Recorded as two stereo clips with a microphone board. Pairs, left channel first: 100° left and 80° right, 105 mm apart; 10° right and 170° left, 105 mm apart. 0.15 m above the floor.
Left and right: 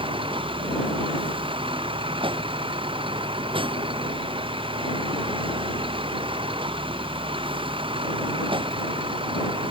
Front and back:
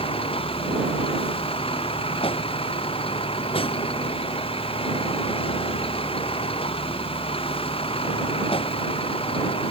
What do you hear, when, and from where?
0.0 s a vehicle: 45° right